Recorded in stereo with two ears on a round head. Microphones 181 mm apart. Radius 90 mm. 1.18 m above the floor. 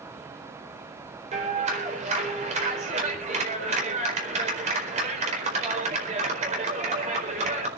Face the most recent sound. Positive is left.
turn(degrees=-35)  # may be behind; listen again after turning